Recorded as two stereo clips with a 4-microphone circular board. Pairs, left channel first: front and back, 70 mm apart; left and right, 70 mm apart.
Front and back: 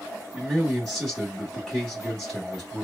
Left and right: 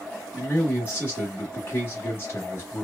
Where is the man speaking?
75° left, 1.1 m.